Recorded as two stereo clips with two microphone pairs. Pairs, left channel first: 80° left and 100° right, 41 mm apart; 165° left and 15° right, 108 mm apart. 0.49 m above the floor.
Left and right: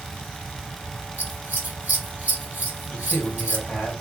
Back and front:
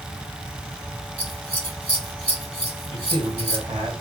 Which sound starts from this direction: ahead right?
Scissors, at 1.2 s.